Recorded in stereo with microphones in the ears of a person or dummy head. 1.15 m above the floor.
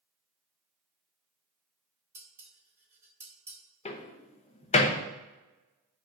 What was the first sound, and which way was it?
Dishes clattering, 10° right (ahead or behind).